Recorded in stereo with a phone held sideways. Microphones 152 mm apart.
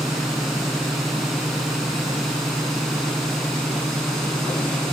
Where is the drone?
Centre (ahead or behind).